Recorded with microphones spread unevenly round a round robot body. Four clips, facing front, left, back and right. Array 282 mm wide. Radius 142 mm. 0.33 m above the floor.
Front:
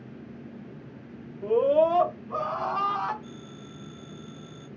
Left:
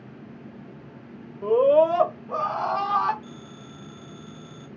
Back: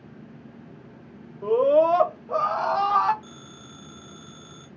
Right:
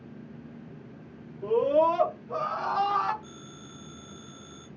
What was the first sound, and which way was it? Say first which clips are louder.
A scream: left 5 dB, back 3 dB; 125° left.